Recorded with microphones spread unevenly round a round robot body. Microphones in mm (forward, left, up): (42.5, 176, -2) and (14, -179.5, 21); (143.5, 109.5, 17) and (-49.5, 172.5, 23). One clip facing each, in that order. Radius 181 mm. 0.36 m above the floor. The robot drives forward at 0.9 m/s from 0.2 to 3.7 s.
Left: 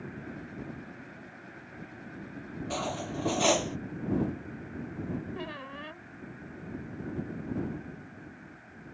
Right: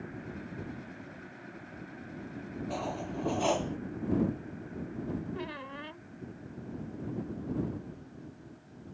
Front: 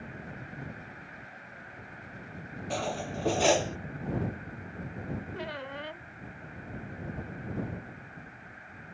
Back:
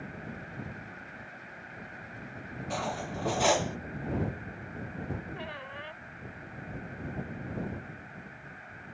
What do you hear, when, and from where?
2.7 s cutlery clinking: 40° left; by 3.8 s 45° left
5.3 s a squeak: 5° right